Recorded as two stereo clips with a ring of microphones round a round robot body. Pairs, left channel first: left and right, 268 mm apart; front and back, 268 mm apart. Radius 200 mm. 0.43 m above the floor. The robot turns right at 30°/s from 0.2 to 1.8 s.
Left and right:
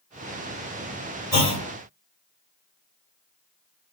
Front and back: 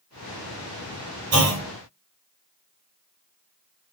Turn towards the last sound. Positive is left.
turn(degrees=-155)